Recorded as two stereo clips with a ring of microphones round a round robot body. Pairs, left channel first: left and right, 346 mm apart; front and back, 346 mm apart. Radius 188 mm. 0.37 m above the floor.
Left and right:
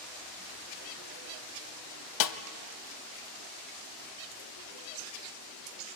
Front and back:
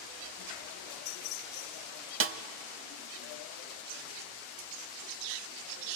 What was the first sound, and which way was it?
A snare drum, 125° left.